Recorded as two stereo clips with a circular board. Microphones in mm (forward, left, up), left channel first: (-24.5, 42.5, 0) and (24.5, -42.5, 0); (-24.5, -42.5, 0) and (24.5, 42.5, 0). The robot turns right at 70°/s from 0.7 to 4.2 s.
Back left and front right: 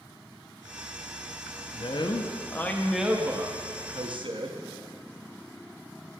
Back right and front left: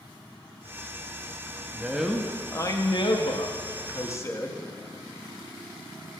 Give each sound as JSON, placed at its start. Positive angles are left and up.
{"t": 1.7, "sound": "a man speaking", "azimuth_deg": 125, "distance_m": 0.7}